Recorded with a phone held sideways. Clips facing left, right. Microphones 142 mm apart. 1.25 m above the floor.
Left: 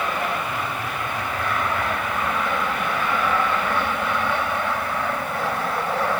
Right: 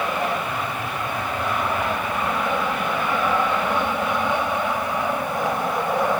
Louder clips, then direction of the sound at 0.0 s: Right 1 dB; 15° right (ahead or behind).